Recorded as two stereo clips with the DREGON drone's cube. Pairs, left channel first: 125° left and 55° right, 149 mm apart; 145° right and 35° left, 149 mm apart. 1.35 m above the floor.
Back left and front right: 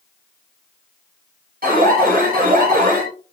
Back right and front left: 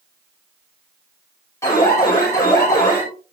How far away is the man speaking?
No man speaking in this recording.